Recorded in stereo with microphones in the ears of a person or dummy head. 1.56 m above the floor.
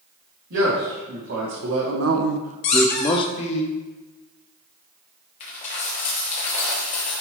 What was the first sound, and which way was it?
A man speaking, 75° right (ahead or behind).